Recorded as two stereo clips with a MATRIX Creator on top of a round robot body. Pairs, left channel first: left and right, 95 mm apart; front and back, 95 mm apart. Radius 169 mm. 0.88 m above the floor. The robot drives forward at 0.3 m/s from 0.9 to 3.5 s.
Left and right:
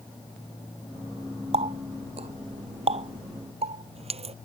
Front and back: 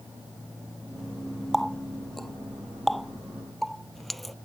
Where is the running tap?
85° right; by 4.3 s 90° right.